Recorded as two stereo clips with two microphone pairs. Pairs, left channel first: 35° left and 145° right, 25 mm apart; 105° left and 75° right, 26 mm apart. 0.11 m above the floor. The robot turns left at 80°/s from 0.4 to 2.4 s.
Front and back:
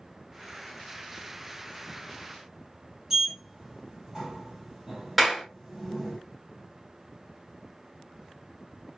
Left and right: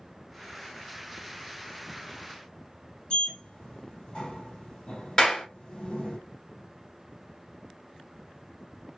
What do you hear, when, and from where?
3.1 s a sliding door: 145° left, 1.6 m
5.2 s a clap: 135° left, 1.2 m